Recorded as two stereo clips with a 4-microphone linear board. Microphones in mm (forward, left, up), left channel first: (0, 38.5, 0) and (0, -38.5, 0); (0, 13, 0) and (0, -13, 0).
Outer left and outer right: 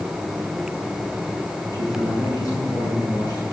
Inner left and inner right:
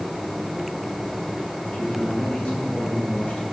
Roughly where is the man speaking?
Left.